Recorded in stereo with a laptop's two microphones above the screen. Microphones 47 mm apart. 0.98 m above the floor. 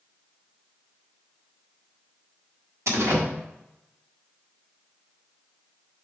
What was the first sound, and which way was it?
A door slam, 85° right.